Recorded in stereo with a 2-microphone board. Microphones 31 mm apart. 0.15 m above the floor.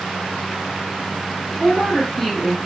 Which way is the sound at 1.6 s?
10° left (ahead or behind).